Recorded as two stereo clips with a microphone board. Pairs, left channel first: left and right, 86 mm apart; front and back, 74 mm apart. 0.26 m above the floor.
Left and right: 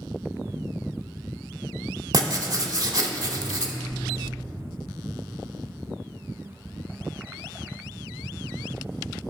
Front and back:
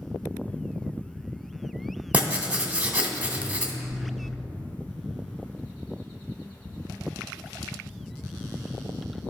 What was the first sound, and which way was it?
Writing, 110° right.